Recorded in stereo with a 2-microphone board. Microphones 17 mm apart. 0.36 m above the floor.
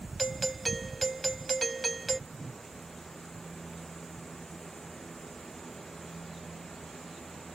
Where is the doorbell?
5° left (ahead or behind).